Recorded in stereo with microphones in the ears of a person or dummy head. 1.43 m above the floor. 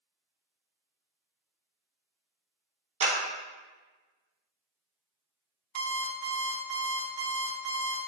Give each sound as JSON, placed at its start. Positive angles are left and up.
{"t": 3.0, "sound": "a clap", "side_deg": -45, "distance_m": 1.3}
{"t": 5.8, "sound": "an alarm clock", "side_deg": -55, "distance_m": 0.9}